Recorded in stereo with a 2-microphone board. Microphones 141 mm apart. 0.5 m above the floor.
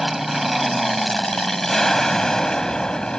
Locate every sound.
0.0 s an aircraft: centre (ahead or behind); by 3.2 s 5° left (ahead or behind)